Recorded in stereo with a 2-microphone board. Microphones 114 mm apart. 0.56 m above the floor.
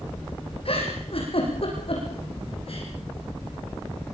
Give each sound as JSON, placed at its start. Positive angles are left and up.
{"t": 0.7, "sound": "a giggle", "side_deg": 60, "distance_m": 7.0}